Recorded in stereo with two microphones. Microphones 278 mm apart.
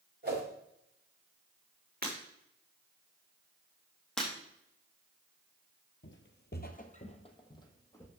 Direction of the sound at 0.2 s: 35° right (ahead or behind).